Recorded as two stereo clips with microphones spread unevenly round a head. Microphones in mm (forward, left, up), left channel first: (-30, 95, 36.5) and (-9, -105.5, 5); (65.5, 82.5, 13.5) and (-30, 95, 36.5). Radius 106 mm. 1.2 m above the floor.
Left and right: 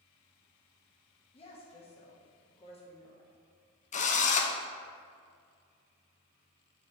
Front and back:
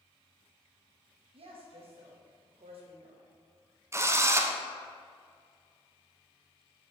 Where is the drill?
115° left, 0.6 m.